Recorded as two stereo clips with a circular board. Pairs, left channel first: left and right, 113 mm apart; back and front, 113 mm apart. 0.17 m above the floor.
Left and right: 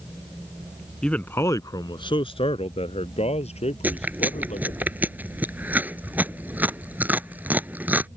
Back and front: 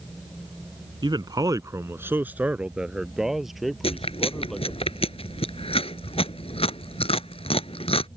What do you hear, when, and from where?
1.0 s a man speaking: 10° left; by 4.8 s 95° left
3.8 s chewing: 160° right